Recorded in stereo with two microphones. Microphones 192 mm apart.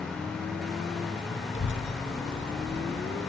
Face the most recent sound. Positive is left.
turn(degrees=75)  # may be behind; listen again after turning